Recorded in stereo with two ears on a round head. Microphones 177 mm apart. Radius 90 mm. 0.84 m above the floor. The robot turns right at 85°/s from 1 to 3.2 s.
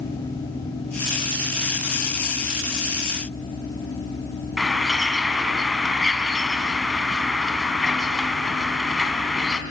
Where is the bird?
Centre (ahead or behind), 2 m.